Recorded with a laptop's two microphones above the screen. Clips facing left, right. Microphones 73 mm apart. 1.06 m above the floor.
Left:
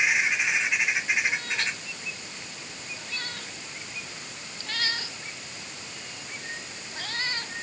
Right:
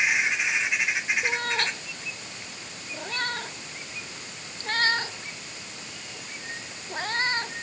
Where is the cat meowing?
50° right (ahead or behind); by 7.5 s 35° right (ahead or behind).